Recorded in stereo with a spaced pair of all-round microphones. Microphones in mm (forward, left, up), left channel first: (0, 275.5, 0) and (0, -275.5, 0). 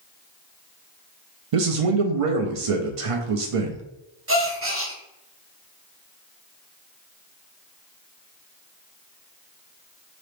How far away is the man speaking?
About 0.6 m.